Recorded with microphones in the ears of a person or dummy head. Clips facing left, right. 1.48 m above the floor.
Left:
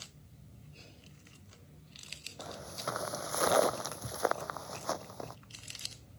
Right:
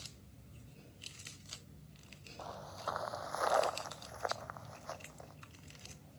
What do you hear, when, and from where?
2.4 s footsteps: 30° left (ahead or behind); by 5.4 s 65° left (ahead or behind)